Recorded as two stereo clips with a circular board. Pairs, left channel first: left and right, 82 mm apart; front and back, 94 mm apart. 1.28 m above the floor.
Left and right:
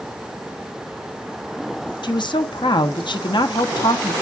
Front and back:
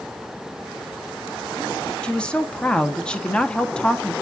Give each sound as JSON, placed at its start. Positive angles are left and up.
{"t": 2.0, "sound": "a woman speaking", "azimuth_deg": 80, "distance_m": 1.0}